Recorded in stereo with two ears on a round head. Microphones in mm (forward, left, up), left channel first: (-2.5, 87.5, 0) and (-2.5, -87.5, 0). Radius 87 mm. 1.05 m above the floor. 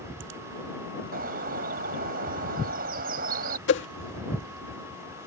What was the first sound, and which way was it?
A bird, 50° right (ahead or behind).